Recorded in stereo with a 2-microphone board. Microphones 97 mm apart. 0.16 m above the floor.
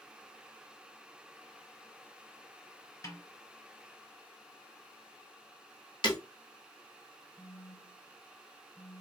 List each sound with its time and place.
3.0 s a snare drum: 35° left (ahead or behind), 1.9 m
6.0 s breaking glass: 55° left (ahead or behind), 1.0 m
7.4 s a phone buzzing: 25° right (ahead or behind), 1.3 m